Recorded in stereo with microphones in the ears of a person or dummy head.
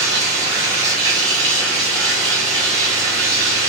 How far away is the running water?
About 1.5 m.